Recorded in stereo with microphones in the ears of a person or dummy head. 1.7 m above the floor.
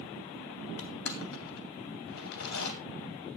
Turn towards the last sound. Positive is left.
turn(degrees=80)